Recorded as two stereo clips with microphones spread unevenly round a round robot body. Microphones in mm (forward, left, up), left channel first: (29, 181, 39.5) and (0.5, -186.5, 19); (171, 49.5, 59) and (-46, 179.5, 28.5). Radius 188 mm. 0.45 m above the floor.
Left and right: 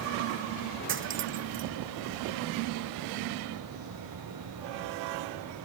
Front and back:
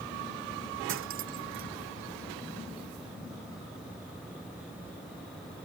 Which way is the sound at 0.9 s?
155° right.